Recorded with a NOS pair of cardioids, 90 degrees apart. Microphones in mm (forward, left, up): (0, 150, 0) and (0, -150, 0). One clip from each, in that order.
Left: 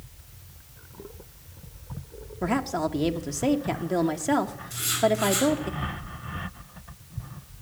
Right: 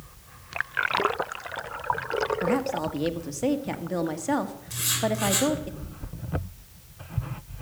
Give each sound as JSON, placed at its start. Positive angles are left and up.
{"t": 2.4, "sound": "a woman speaking", "azimuth_deg": 15, "distance_m": 1.4}
{"t": 4.7, "sound": "writing", "azimuth_deg": -25, "distance_m": 9.0}